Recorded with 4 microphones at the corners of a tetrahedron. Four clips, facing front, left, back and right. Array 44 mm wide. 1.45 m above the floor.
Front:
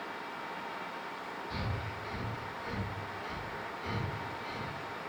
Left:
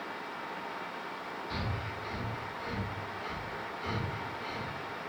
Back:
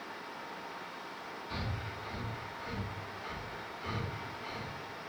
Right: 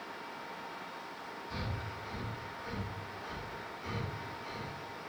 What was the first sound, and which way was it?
Breathing, 110° left.